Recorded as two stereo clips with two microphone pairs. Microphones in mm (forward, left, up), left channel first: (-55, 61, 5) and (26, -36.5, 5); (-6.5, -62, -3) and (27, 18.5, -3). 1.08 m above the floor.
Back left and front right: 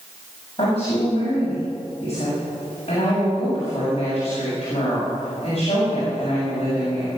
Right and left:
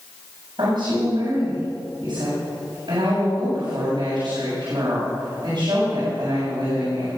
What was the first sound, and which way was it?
A woman speaking, 90° left.